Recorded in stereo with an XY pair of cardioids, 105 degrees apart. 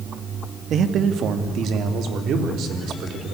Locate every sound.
0.7 s a man speaking: 60° right, 1.7 m; by 3.4 s 75° right, 4 m